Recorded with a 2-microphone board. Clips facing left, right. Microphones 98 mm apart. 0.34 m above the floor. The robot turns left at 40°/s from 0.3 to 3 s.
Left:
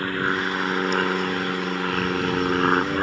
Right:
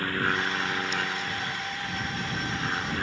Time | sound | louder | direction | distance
0.0 | an aircraft | left 4 dB | 20° left (ahead or behind) | ?